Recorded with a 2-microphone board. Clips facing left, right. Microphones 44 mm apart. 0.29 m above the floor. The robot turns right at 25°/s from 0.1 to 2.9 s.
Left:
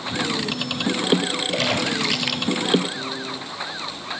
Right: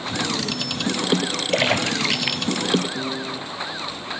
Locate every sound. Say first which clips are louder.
1.5 s a splash: right 4 dB; 30° right (ahead or behind), 2.5 m; by 2.7 s centre (ahead or behind), 2.5 m
3.0 s a piano: right 2 dB; 50° right (ahead or behind), 5 m